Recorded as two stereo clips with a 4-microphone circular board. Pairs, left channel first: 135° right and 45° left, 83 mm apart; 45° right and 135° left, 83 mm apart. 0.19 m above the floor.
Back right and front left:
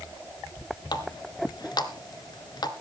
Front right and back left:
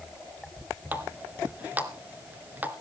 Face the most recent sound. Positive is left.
turn(degrees=-155)